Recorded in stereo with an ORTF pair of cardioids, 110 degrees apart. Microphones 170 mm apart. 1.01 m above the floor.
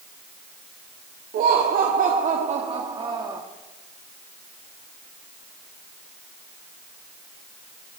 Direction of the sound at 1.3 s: 60° right.